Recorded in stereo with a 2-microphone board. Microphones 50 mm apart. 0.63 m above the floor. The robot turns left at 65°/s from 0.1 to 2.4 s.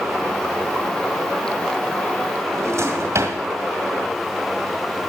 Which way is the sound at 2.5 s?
60° right (ahead or behind).